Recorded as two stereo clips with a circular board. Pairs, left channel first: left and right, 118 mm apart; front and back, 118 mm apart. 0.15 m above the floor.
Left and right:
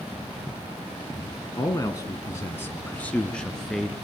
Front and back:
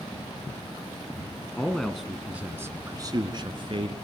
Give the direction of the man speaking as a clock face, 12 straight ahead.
10 o'clock.